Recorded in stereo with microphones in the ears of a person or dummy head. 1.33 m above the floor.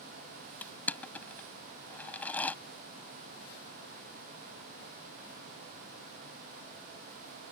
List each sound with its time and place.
0.6 s crushing: 10° left (ahead or behind)